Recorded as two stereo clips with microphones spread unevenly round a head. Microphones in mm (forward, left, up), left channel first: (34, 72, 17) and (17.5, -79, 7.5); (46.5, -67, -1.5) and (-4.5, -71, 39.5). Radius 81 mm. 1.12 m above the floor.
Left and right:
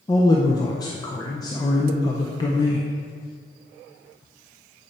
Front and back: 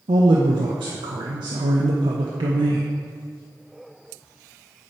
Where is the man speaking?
150° left, 0.5 m.